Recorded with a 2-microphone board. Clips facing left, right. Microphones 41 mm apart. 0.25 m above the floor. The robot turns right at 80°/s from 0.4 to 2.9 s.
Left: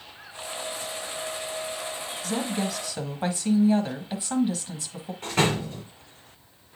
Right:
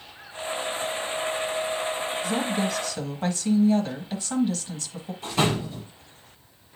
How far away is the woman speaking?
About 1.2 m.